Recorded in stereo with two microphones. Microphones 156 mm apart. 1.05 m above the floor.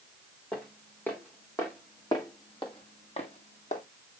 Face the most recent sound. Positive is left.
turn(degrees=50)  # may be behind; listen again after turning